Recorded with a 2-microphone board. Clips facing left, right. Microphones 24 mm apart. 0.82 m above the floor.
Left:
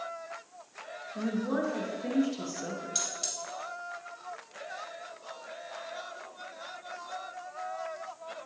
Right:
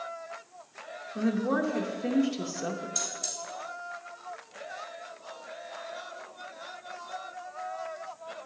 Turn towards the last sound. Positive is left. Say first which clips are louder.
# even
turn(degrees=70)  # may be behind; listen again after turning